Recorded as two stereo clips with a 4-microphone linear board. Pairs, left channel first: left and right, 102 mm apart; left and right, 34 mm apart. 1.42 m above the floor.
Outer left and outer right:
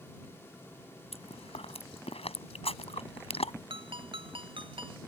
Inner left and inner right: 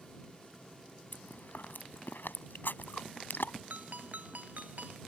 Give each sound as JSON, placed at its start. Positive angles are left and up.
{"t": 1.1, "sound": "chewing", "side_deg": 75}
{"t": 3.7, "sound": "a ringtone", "side_deg": -60}